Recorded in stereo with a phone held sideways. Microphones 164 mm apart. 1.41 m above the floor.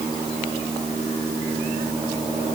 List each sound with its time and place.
Only background noise.